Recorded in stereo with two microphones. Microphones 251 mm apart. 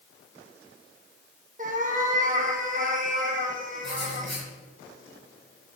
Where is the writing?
45° right (ahead or behind), 2.5 m.